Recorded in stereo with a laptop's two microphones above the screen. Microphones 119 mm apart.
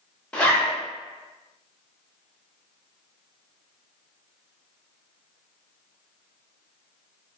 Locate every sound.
0.3 s a zipper: 10° left (ahead or behind), 0.7 m